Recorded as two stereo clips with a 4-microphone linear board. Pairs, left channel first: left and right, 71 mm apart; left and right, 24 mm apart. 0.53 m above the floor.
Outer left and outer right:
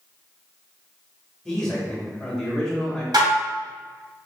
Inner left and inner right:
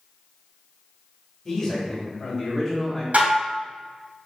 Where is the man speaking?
10° left (ahead or behind), 1.8 m.